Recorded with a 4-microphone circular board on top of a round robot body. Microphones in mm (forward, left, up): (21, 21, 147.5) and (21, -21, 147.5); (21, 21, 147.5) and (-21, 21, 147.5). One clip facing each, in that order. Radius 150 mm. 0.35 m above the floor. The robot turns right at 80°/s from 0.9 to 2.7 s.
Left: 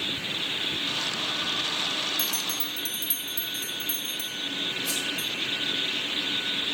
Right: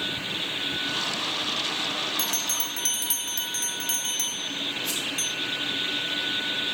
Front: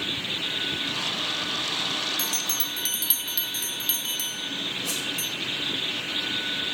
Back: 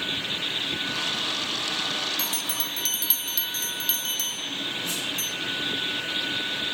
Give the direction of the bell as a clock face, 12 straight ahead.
4 o'clock.